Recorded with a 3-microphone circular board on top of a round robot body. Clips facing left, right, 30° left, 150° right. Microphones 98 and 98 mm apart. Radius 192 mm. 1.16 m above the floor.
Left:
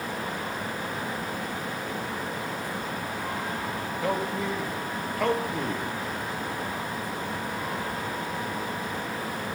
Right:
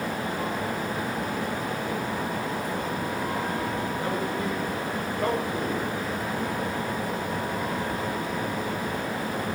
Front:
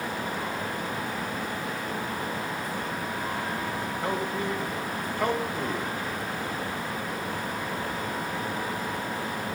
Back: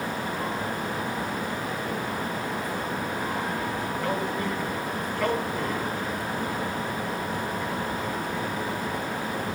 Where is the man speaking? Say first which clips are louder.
Even, even; 105° left, 3.5 m.